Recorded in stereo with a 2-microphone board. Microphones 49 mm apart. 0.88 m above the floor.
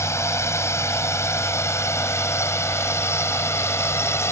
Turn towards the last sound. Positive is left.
turn(degrees=65)  # may be behind; listen again after turning